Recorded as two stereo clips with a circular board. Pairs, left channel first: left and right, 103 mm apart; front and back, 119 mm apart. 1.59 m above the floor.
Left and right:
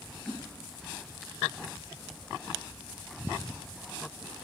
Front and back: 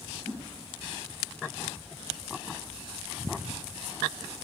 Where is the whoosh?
175° left, 2.0 m.